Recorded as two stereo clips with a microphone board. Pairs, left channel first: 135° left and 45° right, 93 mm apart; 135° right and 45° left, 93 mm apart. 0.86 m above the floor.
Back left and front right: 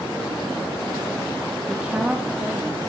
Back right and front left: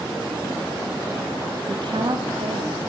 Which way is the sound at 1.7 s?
35° left.